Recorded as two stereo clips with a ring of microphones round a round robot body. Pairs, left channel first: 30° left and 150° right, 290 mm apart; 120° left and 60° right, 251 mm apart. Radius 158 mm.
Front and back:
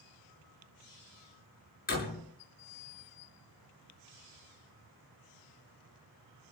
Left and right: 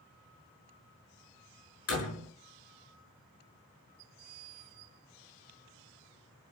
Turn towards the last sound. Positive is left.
turn(degrees=90)